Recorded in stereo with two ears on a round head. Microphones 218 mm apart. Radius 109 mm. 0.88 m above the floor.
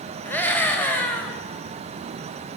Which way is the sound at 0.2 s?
10° left (ahead or behind).